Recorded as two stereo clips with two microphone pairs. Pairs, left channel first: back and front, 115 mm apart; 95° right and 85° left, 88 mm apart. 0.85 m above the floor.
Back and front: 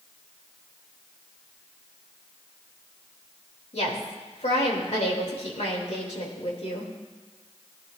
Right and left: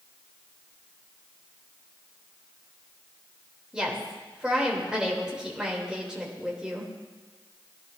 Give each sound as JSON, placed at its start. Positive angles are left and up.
{"t": 3.7, "sound": "a woman speaking", "azimuth_deg": 165, "distance_m": 3.0}